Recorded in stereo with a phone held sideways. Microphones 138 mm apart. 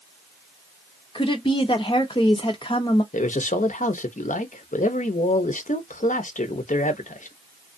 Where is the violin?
I don't hear a violin.